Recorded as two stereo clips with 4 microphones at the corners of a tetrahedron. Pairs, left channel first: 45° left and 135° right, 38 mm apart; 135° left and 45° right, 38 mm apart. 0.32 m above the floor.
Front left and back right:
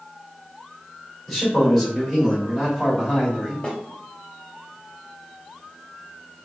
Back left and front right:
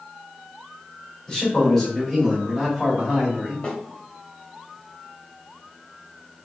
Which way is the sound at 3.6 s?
90° left.